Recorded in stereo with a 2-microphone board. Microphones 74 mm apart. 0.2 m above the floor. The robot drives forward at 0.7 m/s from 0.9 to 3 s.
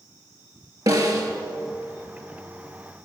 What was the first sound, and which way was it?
A snare drum, 55° right (ahead or behind).